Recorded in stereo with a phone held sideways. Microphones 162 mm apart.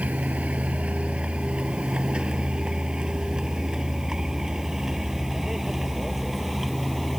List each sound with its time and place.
0.0 s a vehicle: 10° right (ahead or behind); by 7.2 s centre (ahead or behind)